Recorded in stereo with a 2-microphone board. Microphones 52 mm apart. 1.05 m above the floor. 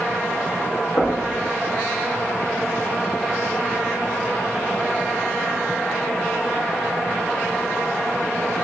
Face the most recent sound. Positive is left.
turn(degrees=85)